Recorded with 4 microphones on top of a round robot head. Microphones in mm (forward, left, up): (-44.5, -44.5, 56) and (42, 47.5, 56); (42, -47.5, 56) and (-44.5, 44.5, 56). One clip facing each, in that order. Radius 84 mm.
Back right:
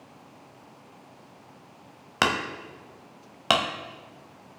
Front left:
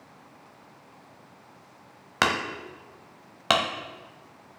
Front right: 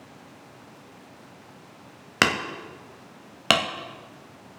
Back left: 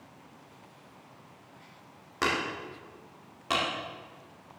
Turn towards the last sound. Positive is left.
turn(degrees=-45)